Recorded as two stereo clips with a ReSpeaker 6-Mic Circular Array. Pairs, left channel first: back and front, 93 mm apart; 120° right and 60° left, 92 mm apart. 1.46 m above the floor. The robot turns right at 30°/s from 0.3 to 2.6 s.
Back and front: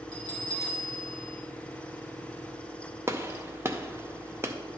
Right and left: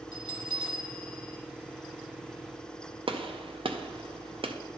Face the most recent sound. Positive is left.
turn(degrees=60)